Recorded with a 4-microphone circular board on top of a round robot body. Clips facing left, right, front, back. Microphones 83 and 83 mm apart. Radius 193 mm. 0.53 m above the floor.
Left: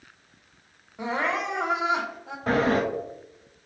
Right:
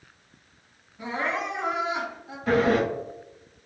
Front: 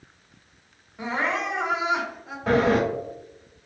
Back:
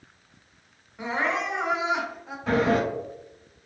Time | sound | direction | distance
1.0 | crying | 90° left | 0.7 m
2.5 | a sliding door | 40° left | 0.7 m